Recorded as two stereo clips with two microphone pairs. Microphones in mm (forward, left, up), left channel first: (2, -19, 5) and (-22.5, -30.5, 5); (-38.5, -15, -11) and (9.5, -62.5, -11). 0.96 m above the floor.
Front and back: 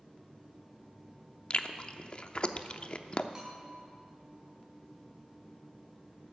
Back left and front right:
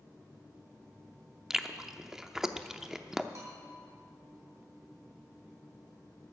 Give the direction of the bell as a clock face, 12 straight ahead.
3 o'clock.